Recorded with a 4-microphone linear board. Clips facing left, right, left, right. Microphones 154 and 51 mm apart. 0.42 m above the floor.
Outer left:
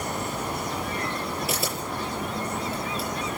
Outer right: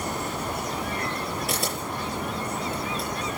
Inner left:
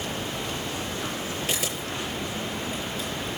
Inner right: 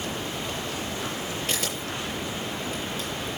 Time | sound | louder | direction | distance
1.5 | a camera shutter | even, even | 5° left (ahead or behind) | 7 m